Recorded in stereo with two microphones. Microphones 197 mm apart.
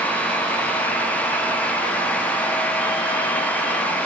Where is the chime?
I don't hear a chime.